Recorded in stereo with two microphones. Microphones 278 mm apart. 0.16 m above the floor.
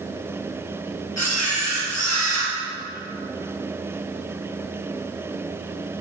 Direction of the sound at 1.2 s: 70° left (ahead or behind).